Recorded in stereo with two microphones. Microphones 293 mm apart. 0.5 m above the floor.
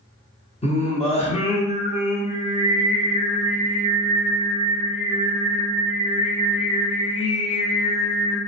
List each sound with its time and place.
0.6 s singing: 20° left (ahead or behind), 0.8 m